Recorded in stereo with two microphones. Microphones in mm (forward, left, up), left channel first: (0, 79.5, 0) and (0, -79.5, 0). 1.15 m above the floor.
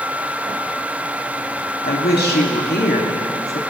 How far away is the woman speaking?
About 2.5 m.